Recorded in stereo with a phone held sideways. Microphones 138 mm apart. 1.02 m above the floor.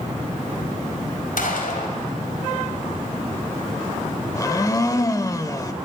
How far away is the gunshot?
About 3 m.